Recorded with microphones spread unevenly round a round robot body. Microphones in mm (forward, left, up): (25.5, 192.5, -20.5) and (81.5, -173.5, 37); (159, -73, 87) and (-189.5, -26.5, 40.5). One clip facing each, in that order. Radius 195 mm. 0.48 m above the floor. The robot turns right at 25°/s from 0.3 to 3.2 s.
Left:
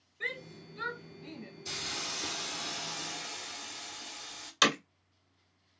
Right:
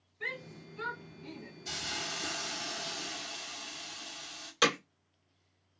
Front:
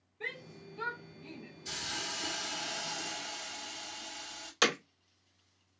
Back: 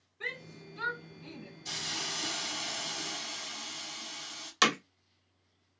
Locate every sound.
0.2 s a shout: 115° left, 1.9 m; by 1.5 s 145° left, 1.9 m
1.6 s a hiss: 120° left, 1.4 m; by 4.5 s 160° left, 1.4 m
4.6 s hammering: 120° left, 1.1 m